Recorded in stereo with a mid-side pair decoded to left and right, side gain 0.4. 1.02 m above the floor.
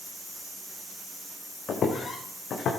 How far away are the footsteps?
About 3 m.